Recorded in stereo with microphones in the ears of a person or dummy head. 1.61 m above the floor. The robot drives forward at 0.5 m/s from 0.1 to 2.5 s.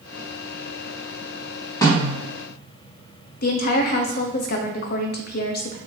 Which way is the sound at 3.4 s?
55° left (ahead or behind).